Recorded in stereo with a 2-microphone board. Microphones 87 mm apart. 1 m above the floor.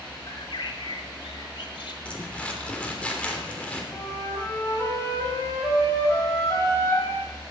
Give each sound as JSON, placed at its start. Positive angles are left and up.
{"t": 0.3, "sound": "a bird", "side_deg": 75, "distance_m": 1.8}
{"t": 2.0, "sound": "crumpling", "side_deg": 15, "distance_m": 3.0}
{"t": 3.9, "sound": "a flute", "side_deg": 35, "distance_m": 4.5}